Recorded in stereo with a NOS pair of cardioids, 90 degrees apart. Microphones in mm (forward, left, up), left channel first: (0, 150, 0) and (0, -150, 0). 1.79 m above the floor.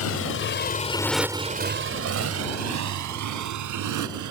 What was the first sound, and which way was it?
A motorcycle, 60° left.